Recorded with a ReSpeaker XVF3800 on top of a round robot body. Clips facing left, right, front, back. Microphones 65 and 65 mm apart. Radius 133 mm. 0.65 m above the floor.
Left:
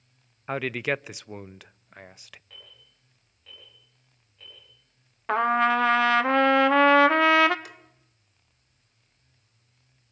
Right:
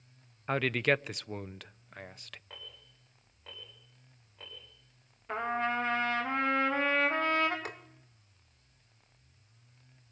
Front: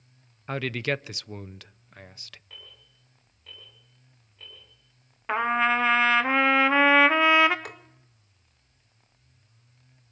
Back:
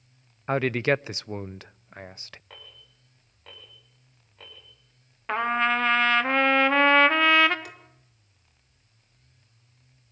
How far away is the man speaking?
About 0.5 m.